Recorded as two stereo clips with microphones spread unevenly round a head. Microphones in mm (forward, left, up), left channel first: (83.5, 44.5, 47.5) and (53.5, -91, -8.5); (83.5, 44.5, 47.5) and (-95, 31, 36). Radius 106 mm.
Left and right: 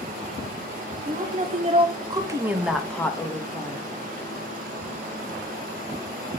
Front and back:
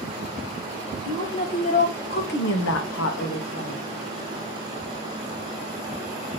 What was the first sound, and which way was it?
A woman speaking, 75° right.